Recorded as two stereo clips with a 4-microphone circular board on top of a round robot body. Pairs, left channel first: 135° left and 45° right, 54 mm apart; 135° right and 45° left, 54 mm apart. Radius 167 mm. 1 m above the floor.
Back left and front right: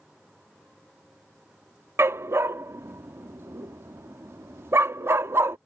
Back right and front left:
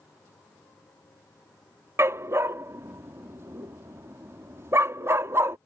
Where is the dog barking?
Straight ahead.